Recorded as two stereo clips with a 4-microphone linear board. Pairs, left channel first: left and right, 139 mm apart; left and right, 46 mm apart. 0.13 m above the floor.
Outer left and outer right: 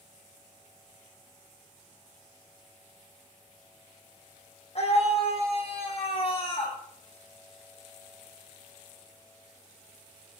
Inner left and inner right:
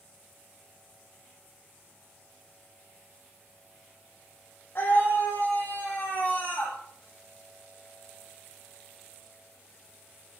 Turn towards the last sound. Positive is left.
turn(degrees=40)  # may be behind; listen again after turning